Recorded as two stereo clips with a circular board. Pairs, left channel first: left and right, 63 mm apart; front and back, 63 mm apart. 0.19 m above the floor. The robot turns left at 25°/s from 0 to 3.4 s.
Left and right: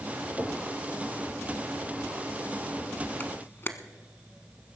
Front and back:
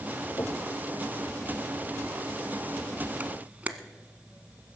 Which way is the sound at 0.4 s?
30° right.